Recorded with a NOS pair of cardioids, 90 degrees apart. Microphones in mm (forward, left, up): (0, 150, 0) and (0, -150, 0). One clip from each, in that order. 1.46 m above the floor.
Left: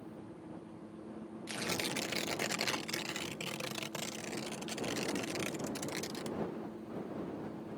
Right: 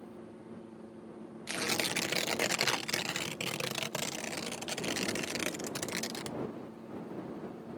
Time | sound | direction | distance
1.5 | tearing paper | 35° right | ?